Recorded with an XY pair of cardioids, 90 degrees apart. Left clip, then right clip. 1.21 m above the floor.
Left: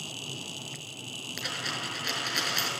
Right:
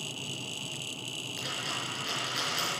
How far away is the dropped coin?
About 5 m.